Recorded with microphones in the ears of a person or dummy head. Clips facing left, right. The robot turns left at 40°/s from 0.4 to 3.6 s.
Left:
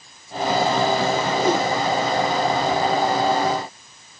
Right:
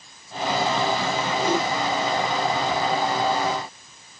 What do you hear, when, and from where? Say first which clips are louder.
1.4 s a whoosh: left 2 dB; 80° left, 5.5 m; by 1.6 s 85° left, 5.5 m